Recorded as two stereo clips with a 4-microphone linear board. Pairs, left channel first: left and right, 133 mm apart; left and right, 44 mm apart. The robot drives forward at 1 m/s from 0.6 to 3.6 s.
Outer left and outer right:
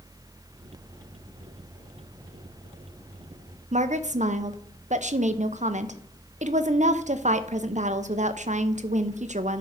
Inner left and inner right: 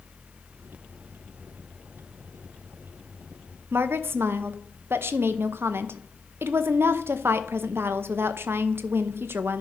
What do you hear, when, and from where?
3.7 s a woman speaking: 65° right (ahead or behind), 0.7 m